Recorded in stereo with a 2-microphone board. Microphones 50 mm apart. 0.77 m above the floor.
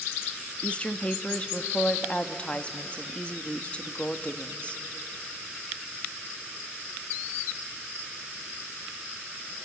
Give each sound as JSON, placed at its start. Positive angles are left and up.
{"t": 0.6, "sound": "a woman speaking", "side_deg": 25, "distance_m": 0.9}